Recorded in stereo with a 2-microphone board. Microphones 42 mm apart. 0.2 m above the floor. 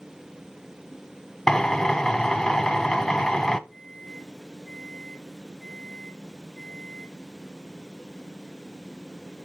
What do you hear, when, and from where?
1.5 s a drill: 10° left (ahead or behind), 0.8 m
3.7 s a microwave: centre (ahead or behind), 7 m